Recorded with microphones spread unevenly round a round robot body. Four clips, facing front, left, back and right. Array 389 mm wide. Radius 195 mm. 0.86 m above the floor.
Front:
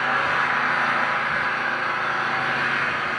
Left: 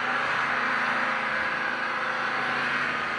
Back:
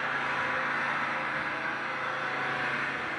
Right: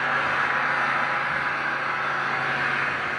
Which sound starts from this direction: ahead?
An engine running, at 0.0 s.